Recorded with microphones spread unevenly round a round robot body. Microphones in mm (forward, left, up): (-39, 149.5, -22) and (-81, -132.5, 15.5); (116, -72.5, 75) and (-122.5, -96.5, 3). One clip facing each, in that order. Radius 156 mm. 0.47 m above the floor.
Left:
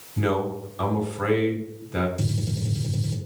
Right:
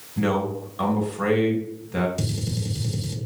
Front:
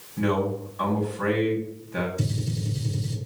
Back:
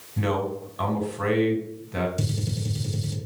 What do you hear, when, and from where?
0.2 s a man speaking: 175° left, 3 m
2.2 s a gunshot: 165° right, 2.5 m